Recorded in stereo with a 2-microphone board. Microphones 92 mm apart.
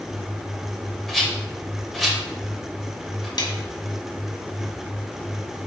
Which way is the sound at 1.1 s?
Centre (ahead or behind).